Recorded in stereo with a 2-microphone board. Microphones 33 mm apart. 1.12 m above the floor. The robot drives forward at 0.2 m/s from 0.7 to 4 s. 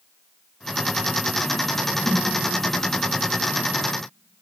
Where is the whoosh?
60° left (ahead or behind), 2 m.